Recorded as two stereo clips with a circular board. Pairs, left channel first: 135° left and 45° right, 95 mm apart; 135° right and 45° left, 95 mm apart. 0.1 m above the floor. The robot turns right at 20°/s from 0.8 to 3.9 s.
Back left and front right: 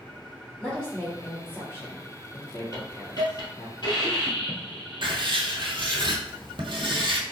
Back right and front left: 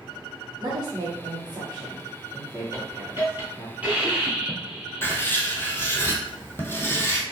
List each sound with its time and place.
0.6 s a woman speaking: 60° left, 2.0 m; by 3.7 s 120° left, 2.0 m
2.7 s a hiss: 95° left, 1.3 m; by 6.0 s 120° left, 1.3 m
5.0 s writing: 70° right, 0.7 m